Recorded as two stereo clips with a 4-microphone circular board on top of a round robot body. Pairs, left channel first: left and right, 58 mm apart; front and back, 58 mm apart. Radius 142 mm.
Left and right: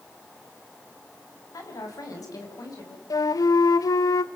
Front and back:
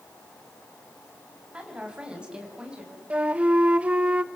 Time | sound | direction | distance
1.5 | a woman speaking | 105° left | 5 m
3.1 | a flute | 110° left | 0.7 m